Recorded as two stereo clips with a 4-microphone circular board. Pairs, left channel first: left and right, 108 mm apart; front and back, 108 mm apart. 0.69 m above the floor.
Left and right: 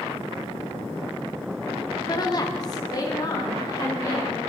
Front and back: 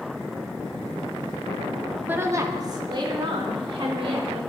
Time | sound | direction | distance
2.1 | a woman speaking | 115° left | 1.2 m